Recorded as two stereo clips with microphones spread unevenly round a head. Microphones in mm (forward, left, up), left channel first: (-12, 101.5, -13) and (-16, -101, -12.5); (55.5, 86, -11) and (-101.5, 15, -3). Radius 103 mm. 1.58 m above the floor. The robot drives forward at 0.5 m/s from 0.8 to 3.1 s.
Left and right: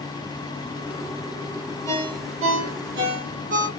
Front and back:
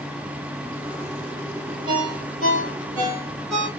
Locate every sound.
1.9 s a ringtone: 105° right, 2 m; by 3.7 s 120° right, 2.5 m